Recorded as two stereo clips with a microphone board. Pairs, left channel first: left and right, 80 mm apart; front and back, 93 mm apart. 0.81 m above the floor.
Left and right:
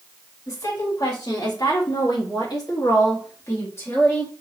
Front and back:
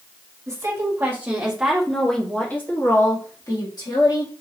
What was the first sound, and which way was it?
A woman speaking, 125° left.